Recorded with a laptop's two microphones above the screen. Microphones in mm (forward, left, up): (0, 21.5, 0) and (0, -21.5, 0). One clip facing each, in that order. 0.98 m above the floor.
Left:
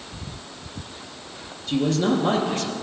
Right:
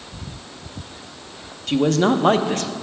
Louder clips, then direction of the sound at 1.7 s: Right 4 dB; 60° right (ahead or behind).